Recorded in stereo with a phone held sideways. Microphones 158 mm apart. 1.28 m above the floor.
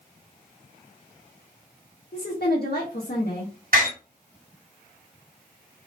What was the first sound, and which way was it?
A woman speaking, 80° left.